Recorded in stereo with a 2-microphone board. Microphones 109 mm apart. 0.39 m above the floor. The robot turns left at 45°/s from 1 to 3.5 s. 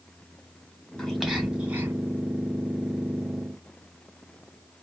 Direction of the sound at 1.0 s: 5° left (ahead or behind).